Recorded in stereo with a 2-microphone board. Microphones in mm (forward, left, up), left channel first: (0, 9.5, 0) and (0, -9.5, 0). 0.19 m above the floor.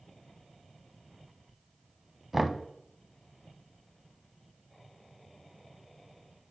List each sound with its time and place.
2.3 s knocking: 10° right (ahead or behind), 0.7 m